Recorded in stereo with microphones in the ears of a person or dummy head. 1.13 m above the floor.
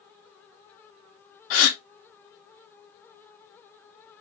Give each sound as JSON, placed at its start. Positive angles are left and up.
{"t": 1.5, "sound": "a gasp", "side_deg": 80, "distance_m": 1.0}